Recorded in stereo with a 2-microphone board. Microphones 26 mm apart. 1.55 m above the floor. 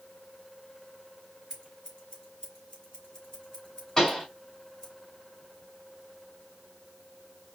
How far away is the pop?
About 3 m.